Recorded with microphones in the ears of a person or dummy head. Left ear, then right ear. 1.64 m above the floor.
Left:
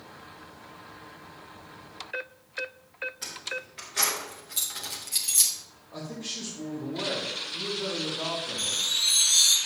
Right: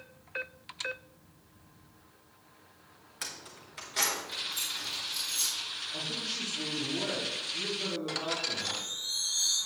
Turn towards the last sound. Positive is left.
turn(degrees=60)  # may be behind; listen again after turning